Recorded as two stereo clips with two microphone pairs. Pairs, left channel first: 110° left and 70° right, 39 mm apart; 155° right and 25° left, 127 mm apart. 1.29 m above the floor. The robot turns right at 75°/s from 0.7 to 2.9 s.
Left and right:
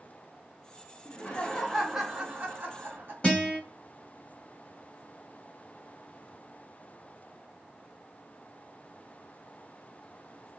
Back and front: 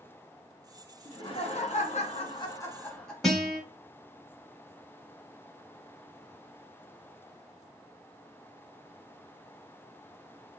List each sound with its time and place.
1.1 s laughter: 150° left, 0.9 m; by 3.1 s 70° right, 0.9 m
3.2 s a guitar: 115° left, 1.2 m